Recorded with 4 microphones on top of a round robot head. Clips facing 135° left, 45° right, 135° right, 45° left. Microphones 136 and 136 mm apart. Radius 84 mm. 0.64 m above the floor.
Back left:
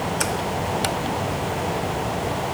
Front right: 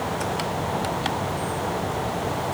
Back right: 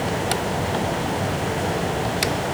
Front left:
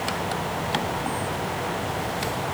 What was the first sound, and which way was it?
Only background noise.